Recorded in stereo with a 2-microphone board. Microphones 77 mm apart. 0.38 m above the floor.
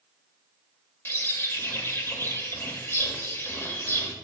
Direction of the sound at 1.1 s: 30° left (ahead or behind).